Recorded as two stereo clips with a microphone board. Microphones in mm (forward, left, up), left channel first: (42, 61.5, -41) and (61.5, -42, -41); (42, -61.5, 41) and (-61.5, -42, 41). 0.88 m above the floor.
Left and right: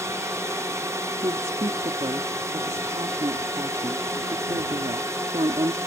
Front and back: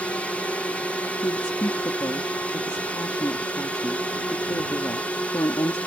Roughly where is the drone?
Right.